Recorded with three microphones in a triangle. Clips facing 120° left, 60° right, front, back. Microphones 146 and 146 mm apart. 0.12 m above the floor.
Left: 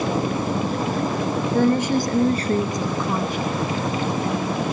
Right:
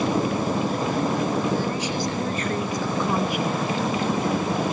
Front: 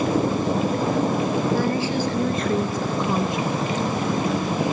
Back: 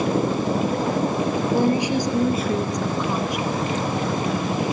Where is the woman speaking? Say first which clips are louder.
Left 7 dB, back 2 dB; 115° left, 2.5 m; by 3.5 s 10° right, 1.4 m.